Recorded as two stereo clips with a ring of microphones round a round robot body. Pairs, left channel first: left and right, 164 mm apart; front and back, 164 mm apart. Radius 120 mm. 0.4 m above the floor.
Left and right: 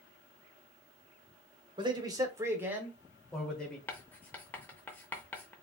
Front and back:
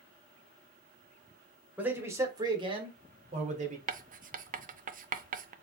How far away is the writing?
About 0.5 m.